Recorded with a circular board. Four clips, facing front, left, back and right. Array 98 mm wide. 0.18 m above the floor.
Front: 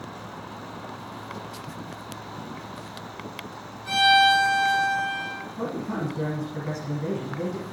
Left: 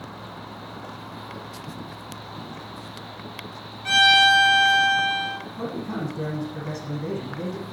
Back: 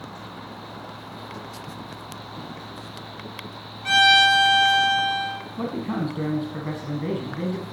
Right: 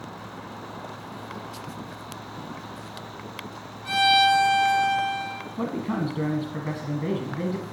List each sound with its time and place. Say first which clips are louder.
3.9 s a violin: left 1 dB, back 1 dB; 145° left, 2 m
5.6 s a man speaking: right 4 dB, back 2 dB; 125° right, 1.3 m